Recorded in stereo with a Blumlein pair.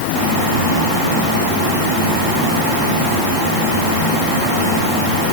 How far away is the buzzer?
No buzzer in this recording.